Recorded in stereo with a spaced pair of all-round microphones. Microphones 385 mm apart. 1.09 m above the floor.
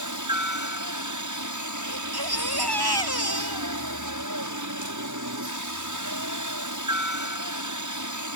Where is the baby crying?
75° right (ahead or behind).